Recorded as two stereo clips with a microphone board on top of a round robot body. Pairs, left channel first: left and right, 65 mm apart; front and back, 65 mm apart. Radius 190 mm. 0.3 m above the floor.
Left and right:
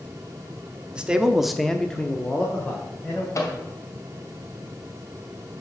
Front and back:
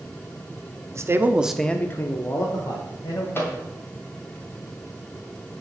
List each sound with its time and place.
0.9 s a man speaking: 160° right, 1.4 m; by 3.2 s 20° left, 3 m
3.4 s a microwave: 55° left, 2.5 m